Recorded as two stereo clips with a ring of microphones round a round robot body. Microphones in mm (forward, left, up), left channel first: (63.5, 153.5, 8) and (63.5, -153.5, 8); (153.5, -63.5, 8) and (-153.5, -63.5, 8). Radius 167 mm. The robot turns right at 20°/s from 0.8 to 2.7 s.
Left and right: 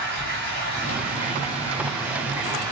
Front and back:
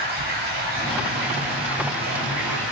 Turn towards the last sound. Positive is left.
turn(degrees=-165)